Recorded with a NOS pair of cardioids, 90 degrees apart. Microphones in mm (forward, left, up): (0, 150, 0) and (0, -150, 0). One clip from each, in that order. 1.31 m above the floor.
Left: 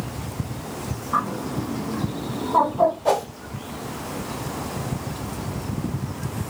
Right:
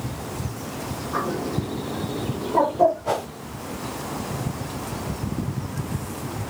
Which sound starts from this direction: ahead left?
A bird, at 1.1 s.